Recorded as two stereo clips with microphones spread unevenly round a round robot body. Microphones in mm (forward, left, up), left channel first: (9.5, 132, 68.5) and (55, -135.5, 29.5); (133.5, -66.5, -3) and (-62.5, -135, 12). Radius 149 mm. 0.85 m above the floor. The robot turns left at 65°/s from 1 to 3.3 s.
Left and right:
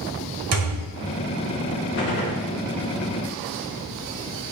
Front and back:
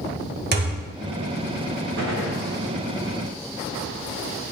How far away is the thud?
About 1.4 m.